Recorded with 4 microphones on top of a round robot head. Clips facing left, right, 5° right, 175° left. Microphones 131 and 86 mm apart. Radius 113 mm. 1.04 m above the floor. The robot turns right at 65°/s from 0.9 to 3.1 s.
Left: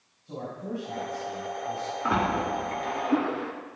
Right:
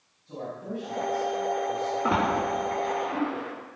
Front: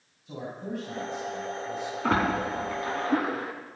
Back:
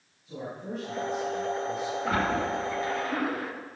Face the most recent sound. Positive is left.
turn(degrees=50)